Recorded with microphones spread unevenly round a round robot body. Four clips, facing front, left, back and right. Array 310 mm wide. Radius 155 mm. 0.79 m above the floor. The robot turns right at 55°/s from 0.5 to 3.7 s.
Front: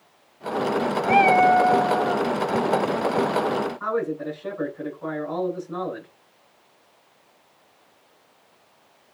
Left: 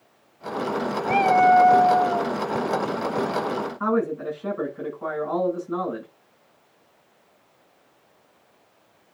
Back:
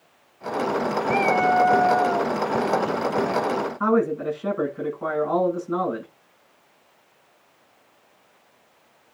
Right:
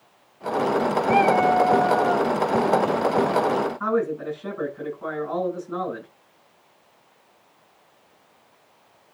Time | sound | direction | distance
1.1 | a cat meowing | 40° left | 0.7 m
3.8 | a man speaking | 160° left | 9 m